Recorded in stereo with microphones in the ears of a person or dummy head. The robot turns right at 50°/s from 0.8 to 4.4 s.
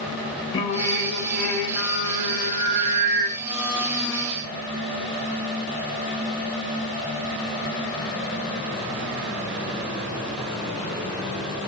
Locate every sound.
0.5 s singing: 155° left, 0.9 m; by 3.3 s 80° right, 0.9 m
3.4 s a blender: 20° right (ahead or behind), 0.8 m; by 4.4 s centre (ahead or behind), 0.8 m